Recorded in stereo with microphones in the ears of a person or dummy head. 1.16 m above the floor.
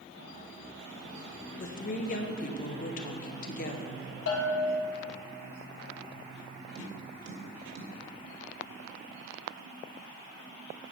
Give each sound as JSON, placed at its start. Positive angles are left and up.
{"t": 1.6, "sound": "a woman speaking", "side_deg": 45, "distance_m": 0.7}
{"t": 4.3, "sound": "a bell", "side_deg": 75, "distance_m": 1.7}
{"t": 6.8, "sound": "tapping", "side_deg": -45, "distance_m": 1.8}